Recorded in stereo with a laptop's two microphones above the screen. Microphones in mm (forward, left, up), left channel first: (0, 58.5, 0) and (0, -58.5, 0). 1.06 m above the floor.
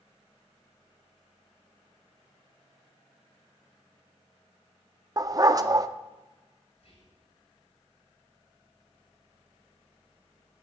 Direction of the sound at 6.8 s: 60° left (ahead or behind).